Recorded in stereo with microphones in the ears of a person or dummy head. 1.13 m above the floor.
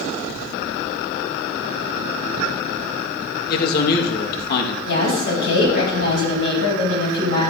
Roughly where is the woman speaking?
Left.